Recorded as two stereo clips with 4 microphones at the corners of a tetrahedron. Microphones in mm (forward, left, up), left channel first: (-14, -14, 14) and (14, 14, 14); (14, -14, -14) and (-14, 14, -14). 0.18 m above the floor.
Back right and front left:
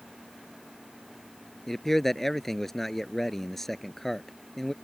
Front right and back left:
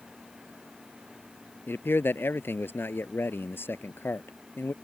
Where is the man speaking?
50° right.